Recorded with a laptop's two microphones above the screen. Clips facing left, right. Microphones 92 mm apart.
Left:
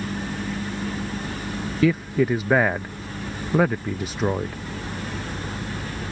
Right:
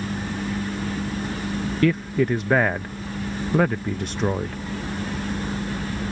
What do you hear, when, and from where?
1.8 s a man speaking: 5° left (ahead or behind)